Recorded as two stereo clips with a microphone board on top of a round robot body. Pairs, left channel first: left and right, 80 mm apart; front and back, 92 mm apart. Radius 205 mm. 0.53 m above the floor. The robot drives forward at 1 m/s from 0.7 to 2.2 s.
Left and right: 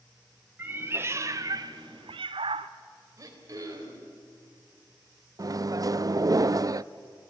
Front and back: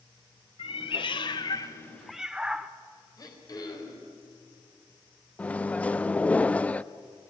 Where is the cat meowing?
25° right, 1.6 m; by 2.7 s 95° right, 0.7 m.